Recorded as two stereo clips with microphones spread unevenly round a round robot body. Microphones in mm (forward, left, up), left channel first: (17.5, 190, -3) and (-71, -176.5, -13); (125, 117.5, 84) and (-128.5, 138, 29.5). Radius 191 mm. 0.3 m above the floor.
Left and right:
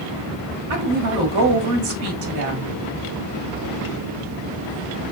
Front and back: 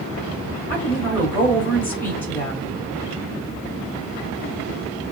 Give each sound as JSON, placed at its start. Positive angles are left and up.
{"t": 0.7, "sound": "a woman speaking", "azimuth_deg": -100, "distance_m": 1.7}